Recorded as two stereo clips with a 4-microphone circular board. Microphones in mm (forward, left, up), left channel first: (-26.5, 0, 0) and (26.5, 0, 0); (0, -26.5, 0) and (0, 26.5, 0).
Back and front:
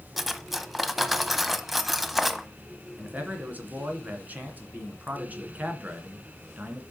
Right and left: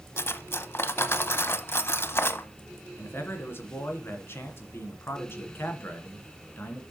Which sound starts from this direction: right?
Cutlery clinking, at 0.2 s.